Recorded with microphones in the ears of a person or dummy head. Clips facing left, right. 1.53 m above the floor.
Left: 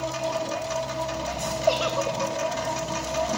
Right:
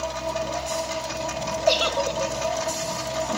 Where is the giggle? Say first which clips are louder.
Right 1 dB; 25° right (ahead or behind), 0.8 m.